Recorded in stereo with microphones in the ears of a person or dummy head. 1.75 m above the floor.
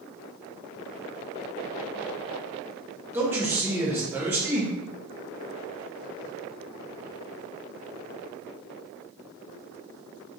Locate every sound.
3.1 s a man speaking: 10° right (ahead or behind), 0.7 m